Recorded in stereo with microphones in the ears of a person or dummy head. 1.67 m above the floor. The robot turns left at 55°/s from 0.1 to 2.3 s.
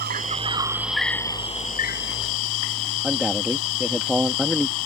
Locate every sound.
0.0 s an insect: 135° right; by 4.9 s 105° left
3.0 s a man speaking: centre (ahead or behind)